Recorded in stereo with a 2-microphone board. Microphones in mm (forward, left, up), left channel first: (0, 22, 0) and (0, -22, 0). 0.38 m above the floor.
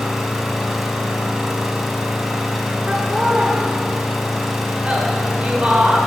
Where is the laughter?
25° right (ahead or behind), 0.9 m.